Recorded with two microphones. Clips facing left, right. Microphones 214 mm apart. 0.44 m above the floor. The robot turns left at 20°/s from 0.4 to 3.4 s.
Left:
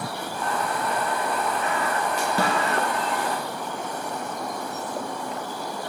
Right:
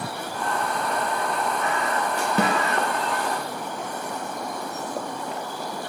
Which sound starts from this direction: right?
A snare drum, at 2.4 s.